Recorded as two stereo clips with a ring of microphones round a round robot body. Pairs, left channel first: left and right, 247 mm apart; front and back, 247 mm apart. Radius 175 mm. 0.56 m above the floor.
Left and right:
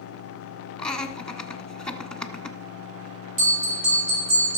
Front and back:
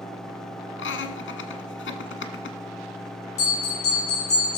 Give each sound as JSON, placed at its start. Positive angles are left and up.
{"t": 0.8, "sound": "laughter", "azimuth_deg": 5, "distance_m": 1.5}
{"t": 3.4, "sound": "a bell", "azimuth_deg": -55, "distance_m": 5.5}